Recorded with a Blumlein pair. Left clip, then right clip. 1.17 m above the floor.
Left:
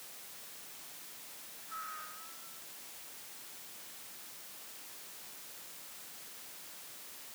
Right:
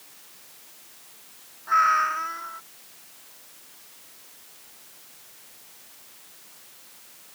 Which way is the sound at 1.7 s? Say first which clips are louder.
Right 25 dB; 50° right.